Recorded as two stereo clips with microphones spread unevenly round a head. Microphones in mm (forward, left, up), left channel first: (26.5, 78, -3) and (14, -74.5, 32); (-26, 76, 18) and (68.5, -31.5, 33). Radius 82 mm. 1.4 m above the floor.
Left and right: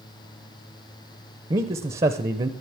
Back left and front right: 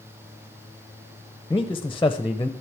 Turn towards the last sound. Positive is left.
turn(degrees=-150)